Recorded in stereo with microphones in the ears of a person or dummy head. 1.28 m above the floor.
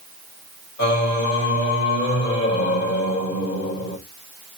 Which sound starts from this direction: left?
Singing, at 0.8 s.